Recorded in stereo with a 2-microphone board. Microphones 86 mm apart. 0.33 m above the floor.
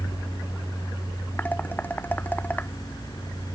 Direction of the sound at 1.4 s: 20° left (ahead or behind).